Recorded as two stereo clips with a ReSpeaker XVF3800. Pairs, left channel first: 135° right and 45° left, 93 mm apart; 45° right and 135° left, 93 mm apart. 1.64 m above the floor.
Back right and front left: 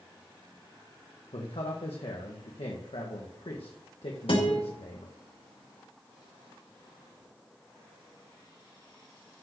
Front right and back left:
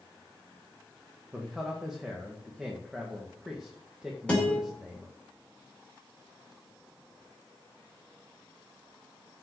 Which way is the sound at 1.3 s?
140° right.